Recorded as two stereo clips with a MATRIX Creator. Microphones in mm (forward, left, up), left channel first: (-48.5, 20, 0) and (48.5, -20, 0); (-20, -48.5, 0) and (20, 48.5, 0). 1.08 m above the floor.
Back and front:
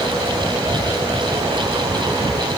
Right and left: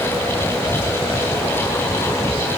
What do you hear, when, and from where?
0.5 s a child speaking: 105° right, 9.5 m; by 2.5 s 110° right, 9 m